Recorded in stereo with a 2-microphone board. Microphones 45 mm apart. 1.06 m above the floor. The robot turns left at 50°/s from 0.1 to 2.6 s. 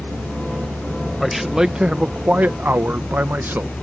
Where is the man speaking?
5° left; by 3.7 s 65° right.